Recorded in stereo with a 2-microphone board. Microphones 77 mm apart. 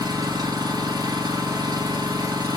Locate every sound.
0.0 s an engine running: 55° right (ahead or behind), 1.7 m